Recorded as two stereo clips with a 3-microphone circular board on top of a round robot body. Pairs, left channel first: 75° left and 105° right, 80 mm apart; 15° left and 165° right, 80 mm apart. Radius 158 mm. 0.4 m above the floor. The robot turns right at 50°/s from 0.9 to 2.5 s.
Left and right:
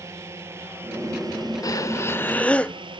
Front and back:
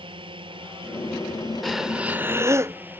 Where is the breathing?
105° left; by 2.8 s 145° left.